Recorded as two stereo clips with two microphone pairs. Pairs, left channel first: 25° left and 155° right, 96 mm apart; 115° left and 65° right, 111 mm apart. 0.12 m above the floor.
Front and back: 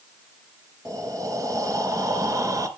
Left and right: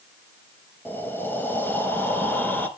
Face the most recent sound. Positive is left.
turn(degrees=175)